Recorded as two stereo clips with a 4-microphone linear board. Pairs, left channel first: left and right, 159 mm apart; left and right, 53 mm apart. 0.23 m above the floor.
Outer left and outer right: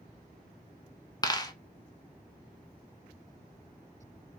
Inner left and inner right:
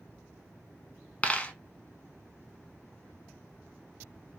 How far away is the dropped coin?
About 0.5 m.